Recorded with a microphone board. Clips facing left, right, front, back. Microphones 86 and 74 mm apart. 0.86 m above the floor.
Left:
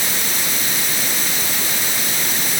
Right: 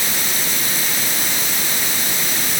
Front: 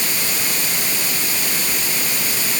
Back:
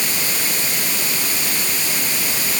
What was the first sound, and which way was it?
Only background noise.